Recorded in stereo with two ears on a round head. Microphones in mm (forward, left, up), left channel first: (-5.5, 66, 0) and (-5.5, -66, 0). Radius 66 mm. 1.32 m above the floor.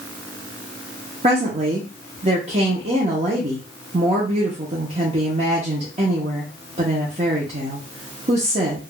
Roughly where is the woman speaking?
Right.